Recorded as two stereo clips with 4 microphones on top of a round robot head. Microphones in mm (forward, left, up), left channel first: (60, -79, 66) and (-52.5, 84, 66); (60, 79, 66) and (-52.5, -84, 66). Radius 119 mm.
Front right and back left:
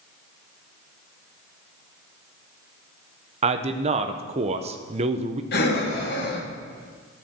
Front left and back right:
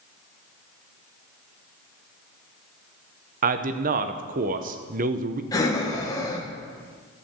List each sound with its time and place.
3.4 s a man speaking: 175° right, 0.7 m
5.5 s breathing: 20° right, 1.8 m